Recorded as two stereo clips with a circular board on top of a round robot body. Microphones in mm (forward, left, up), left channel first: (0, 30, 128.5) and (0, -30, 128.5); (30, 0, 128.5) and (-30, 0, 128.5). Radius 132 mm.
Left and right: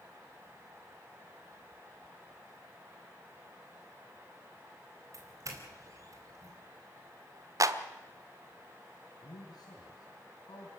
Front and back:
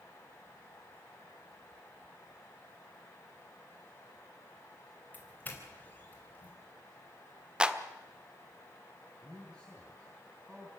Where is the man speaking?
105° left, 4.5 m.